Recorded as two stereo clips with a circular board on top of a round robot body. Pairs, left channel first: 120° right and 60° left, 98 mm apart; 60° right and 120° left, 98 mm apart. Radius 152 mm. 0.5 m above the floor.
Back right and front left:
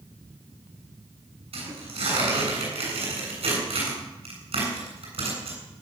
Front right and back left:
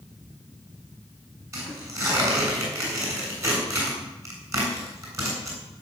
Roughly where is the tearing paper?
Ahead left.